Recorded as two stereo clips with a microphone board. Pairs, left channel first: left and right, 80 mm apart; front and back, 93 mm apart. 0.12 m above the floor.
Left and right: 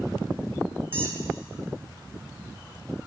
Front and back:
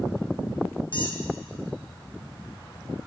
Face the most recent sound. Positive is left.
turn(degrees=-25)